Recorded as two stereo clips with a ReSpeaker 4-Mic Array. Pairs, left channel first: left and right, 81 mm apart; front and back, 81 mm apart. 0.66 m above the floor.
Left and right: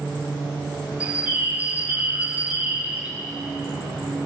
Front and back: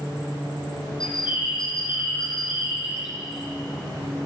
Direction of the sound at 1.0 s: 15° right.